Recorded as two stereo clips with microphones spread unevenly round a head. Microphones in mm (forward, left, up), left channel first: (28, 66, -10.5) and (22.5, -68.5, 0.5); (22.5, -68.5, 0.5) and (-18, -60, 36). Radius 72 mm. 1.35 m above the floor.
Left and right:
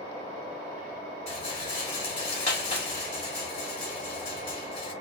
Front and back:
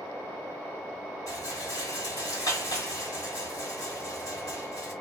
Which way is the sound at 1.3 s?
50° left.